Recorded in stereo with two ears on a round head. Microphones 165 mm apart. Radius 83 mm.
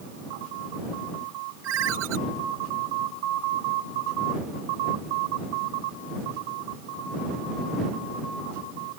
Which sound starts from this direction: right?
A ringtone, at 1.6 s.